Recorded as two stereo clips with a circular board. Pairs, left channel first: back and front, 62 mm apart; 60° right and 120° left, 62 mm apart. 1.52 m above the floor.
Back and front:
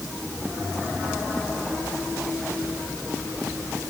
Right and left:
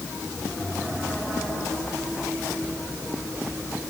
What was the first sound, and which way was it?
Only background noise.